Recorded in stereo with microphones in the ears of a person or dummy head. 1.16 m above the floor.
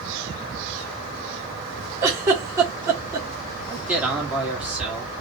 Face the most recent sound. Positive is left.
turn(degrees=-5)  # may be behind; listen again after turning